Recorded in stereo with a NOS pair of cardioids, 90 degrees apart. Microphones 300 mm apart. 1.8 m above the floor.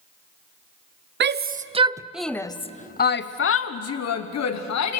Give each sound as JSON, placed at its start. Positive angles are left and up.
{"t": 1.2, "sound": "a shout", "azimuth_deg": -40, "distance_m": 1.0}